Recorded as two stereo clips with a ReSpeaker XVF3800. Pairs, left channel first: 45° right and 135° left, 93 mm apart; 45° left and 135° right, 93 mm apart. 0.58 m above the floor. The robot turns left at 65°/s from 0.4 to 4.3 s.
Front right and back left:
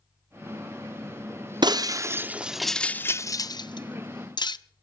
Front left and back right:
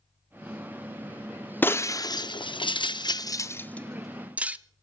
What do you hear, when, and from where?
1.6 s breaking glass: 110° left, 0.5 m; by 4.6 s 65° right, 0.5 m